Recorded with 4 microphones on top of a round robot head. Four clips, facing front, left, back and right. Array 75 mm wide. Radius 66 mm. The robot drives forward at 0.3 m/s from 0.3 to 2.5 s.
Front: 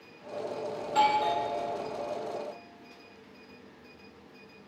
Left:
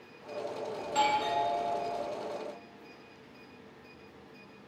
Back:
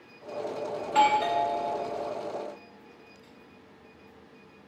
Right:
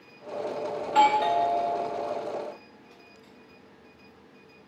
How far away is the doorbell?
About 1.8 m.